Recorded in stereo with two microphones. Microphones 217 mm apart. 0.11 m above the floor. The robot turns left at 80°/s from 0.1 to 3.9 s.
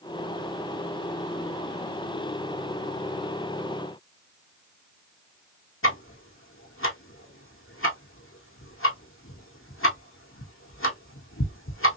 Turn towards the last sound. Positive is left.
turn(degrees=75)  # may be behind; listen again after turning